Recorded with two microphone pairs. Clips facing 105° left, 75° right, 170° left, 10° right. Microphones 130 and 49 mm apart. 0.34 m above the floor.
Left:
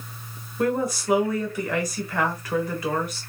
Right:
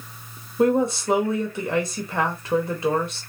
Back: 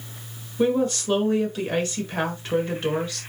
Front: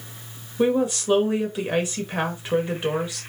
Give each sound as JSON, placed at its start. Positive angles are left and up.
{"t": 0.6, "sound": "a woman speaking", "azimuth_deg": -75, "distance_m": 1.1}